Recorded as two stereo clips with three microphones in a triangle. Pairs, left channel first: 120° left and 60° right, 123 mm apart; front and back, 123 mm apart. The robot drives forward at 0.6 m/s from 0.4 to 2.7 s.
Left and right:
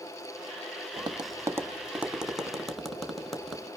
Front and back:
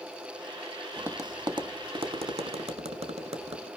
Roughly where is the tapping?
Right.